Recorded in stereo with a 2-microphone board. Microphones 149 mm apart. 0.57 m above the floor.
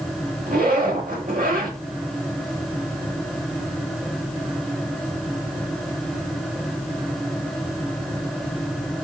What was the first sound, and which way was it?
A zipper, 70° right (ahead or behind).